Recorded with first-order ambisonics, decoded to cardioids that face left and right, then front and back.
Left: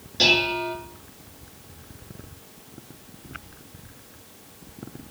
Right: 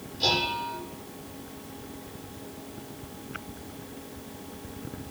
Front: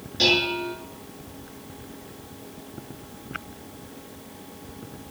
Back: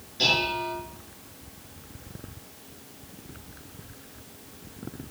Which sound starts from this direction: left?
Dishes clattering, at 0.2 s.